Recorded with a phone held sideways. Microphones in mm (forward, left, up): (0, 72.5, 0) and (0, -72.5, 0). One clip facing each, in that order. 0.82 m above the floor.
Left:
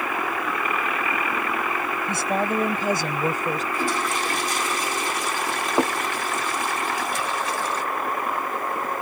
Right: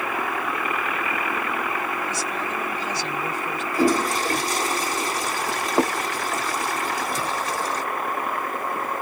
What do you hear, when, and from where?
2.1 s a woman speaking: 60° left (ahead or behind); by 3.6 s 40° left (ahead or behind)
3.7 s a toilet flushing: 40° right (ahead or behind)